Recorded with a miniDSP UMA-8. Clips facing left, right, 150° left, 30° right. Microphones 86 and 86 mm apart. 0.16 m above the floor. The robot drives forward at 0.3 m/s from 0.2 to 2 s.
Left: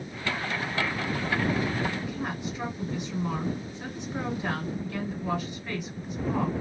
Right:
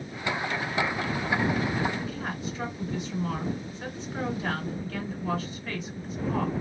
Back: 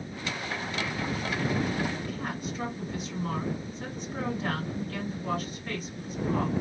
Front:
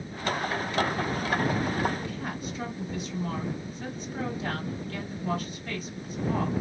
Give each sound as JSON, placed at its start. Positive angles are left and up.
{"t": 2.0, "sound": "a woman speaking", "azimuth_deg": 160, "distance_m": 2.0}